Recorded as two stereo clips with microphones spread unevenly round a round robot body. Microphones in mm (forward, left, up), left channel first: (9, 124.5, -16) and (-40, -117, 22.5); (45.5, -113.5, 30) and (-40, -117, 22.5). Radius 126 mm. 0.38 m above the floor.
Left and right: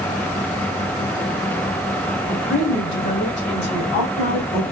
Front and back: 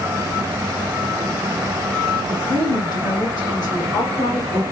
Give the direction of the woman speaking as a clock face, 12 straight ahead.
10 o'clock.